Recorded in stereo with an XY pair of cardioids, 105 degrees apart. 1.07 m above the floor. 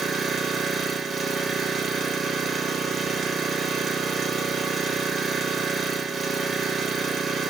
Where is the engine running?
45° right, 0.9 m.